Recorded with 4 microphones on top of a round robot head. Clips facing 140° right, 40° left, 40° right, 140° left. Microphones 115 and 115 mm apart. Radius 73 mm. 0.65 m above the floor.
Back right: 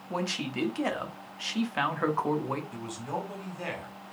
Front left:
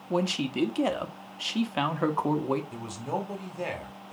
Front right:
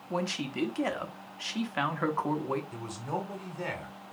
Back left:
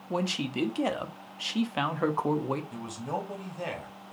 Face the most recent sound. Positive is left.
turn(degrees=75)